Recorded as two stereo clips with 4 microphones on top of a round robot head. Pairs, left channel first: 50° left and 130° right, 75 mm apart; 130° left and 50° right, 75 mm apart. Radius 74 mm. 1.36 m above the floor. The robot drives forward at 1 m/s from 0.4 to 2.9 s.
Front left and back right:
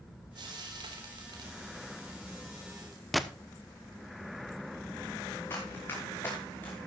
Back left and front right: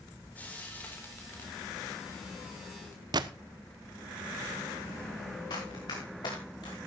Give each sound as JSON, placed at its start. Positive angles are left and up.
{"t": 0.3, "sound": "frying", "azimuth_deg": -155, "distance_m": 3.5}
{"t": 3.1, "sound": "a gunshot", "azimuth_deg": -45, "distance_m": 1.1}
{"t": 5.5, "sound": "running footsteps", "azimuth_deg": 105, "distance_m": 5.5}